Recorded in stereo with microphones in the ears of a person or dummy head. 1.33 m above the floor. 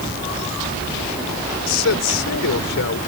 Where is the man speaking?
70° left (ahead or behind).